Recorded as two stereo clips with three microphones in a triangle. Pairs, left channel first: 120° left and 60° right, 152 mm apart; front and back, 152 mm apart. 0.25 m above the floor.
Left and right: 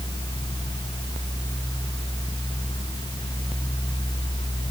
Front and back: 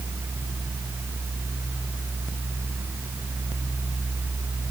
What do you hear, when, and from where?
Only background noise.